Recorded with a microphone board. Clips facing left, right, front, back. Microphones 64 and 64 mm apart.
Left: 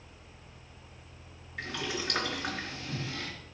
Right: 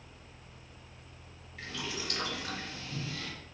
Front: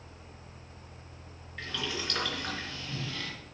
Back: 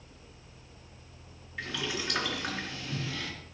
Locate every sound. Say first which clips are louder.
1.6 s boiling: left 4 dB, back 1 dB; 100° left, 3.5 m